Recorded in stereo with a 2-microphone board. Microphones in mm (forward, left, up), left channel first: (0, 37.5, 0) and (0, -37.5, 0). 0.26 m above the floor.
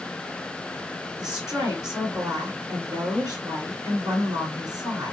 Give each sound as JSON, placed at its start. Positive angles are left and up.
{"t": 1.2, "sound": "a woman speaking", "side_deg": -55, "distance_m": 3.5}